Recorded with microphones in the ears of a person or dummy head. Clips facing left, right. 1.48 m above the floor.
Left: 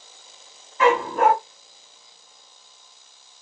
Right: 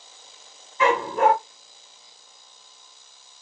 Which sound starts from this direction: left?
A dog barking, at 0.8 s.